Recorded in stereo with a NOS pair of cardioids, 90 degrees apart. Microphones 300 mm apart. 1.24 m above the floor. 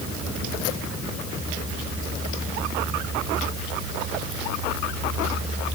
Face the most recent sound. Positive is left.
No sound to turn to.